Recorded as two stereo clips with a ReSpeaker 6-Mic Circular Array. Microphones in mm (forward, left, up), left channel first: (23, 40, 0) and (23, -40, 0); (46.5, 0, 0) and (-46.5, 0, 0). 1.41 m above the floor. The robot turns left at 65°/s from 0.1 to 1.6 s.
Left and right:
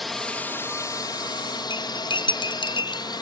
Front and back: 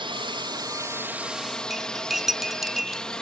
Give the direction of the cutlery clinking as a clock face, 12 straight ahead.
9 o'clock.